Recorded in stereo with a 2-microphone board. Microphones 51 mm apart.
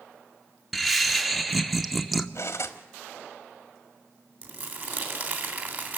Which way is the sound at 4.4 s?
40° right (ahead or behind).